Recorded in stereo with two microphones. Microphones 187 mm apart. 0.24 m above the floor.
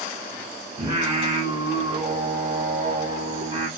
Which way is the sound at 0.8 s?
40° right (ahead or behind).